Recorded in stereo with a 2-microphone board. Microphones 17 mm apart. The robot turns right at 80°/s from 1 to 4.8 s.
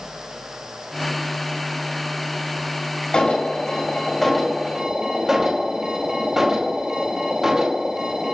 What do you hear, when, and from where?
3.1 s an alarm: 75° left, 4.5 m; by 8.3 s 150° right, 4.5 m